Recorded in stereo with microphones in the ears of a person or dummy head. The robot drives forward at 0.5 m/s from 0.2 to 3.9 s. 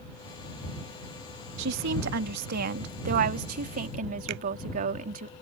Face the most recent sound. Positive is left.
turn(degrees=-65)  # may be behind; listen again after turning